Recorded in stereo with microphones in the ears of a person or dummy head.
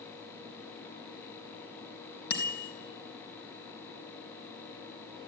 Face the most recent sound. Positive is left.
turn(degrees=65)  # may be behind; listen again after turning